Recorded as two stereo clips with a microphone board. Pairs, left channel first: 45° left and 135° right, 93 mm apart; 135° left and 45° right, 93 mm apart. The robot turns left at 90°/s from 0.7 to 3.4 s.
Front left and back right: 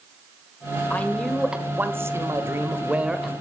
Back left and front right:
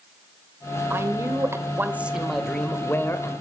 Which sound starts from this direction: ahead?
A man speaking, at 0.9 s.